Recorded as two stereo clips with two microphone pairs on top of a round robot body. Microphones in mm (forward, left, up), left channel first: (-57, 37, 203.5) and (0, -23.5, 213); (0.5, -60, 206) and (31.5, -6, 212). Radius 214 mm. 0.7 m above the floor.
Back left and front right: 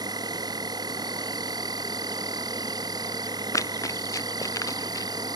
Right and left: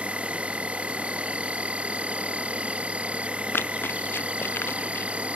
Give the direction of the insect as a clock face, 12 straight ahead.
12 o'clock.